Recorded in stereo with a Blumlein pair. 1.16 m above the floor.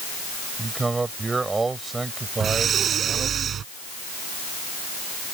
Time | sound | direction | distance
0.6 | a man speaking | 10° right | ?
2.4 | breathing | 25° right | ?